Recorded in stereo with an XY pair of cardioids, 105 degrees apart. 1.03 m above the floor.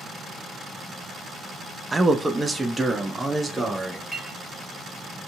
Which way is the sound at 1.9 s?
20° right.